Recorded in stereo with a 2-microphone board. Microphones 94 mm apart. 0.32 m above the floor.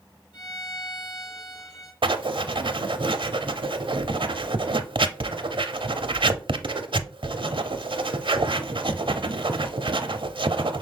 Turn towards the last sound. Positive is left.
turn(degrees=-60)  # may be behind; listen again after turning